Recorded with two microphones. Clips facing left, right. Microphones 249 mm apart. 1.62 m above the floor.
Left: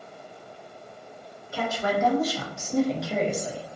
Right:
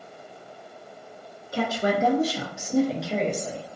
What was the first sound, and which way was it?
A woman speaking, 40° right (ahead or behind).